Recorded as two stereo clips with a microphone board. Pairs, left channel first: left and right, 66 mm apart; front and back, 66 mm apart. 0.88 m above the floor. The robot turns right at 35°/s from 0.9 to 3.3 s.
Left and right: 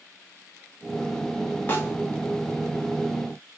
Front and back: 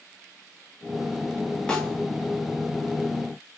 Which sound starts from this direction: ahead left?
A snare drum, at 1.7 s.